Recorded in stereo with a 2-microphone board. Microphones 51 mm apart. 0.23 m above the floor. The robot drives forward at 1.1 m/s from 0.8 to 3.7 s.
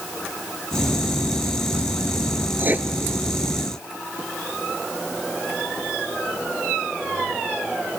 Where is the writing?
45° right (ahead or behind), 0.8 m; by 2.9 s 30° right (ahead or behind), 1.0 m.